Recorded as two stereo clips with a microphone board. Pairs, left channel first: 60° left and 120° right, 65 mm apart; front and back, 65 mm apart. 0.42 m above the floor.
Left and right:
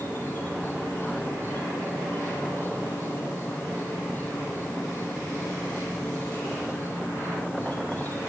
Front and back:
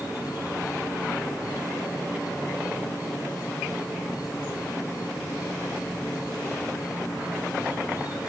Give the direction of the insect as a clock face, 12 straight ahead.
12 o'clock.